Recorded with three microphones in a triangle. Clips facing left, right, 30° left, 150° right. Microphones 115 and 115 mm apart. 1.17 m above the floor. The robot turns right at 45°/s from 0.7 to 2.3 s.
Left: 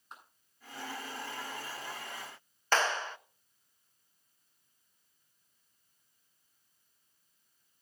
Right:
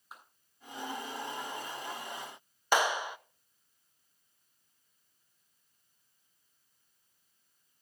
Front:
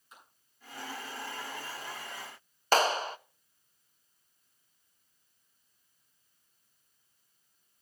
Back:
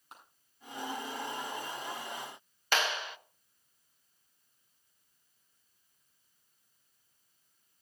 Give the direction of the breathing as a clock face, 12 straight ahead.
I don't hear breathing.